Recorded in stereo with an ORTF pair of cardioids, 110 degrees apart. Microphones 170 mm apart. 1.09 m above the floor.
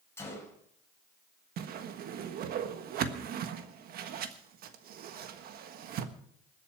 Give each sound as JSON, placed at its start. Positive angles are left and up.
{"t": 0.2, "sound": "a gunshot", "azimuth_deg": 15, "distance_m": 5.5}
{"t": 1.6, "sound": "a whoosh", "azimuth_deg": -70, "distance_m": 1.4}